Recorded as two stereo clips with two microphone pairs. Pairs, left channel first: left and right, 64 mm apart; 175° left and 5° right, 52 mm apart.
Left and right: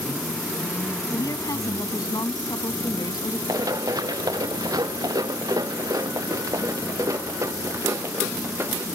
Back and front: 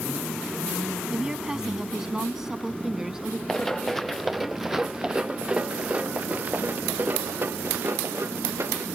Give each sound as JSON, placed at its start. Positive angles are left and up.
{"t": 1.1, "sound": "a woman speaking", "azimuth_deg": 70}
{"t": 3.5, "sound": "running footsteps", "azimuth_deg": -105}